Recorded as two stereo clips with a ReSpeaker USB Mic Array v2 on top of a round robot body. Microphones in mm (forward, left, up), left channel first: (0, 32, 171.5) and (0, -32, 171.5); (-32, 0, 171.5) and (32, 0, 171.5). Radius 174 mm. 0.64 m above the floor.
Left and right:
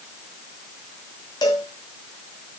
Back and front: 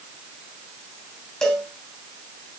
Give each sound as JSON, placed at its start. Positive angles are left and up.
{"t": 1.4, "sound": "a cowbell", "azimuth_deg": 100, "distance_m": 3.0}